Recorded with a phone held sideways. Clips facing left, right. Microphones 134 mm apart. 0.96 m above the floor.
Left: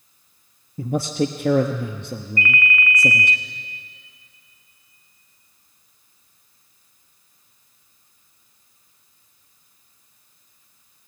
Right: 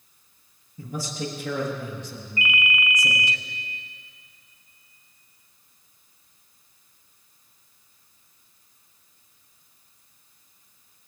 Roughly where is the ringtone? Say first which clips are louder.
Left 3 dB; centre.